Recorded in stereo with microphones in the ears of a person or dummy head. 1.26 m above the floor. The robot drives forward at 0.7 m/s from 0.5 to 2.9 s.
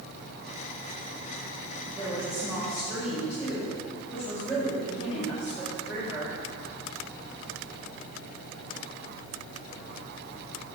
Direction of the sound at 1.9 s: 10° right (ahead or behind).